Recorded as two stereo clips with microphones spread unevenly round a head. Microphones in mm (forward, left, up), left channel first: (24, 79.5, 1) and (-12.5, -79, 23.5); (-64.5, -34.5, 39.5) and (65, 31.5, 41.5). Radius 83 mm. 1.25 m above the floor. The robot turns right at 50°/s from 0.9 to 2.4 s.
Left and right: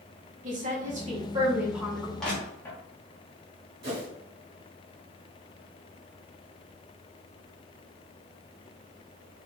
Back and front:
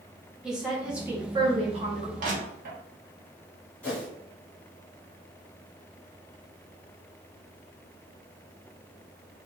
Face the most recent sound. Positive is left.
turn(degrees=-75)